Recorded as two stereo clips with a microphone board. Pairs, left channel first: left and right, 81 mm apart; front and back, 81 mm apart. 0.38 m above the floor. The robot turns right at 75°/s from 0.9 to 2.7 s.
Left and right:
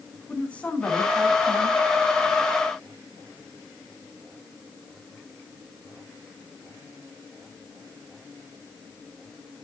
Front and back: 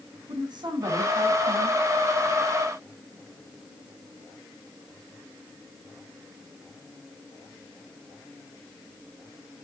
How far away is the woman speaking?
About 4 m.